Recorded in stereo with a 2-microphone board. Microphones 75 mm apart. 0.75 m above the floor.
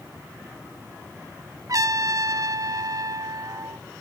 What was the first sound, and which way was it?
A trumpet, 50° right (ahead or behind).